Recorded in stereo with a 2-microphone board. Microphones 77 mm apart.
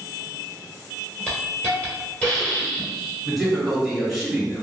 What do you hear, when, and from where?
1.3 s a hiss: 15° left (ahead or behind), 1.1 m
3.2 s a man speaking: centre (ahead or behind), 1.4 m